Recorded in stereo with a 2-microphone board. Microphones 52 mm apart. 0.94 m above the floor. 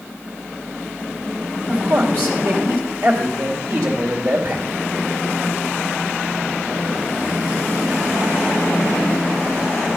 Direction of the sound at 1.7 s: 60° right (ahead or behind).